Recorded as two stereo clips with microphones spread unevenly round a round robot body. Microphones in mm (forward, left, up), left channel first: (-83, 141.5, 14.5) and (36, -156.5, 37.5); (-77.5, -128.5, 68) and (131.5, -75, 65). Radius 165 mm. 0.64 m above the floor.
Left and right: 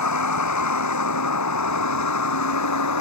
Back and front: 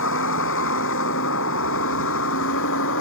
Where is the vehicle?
150° left.